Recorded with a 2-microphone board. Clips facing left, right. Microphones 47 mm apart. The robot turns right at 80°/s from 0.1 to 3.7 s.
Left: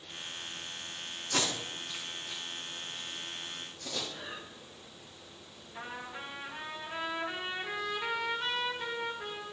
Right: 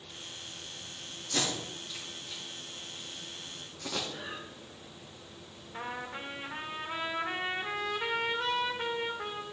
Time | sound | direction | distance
1.3 | tape being pulled | 75° left (ahead or behind) | 4 m
4.1 | breathing | 20° right (ahead or behind) | 5.5 m
5.7 | a trumpet | 55° right (ahead or behind) | 1.9 m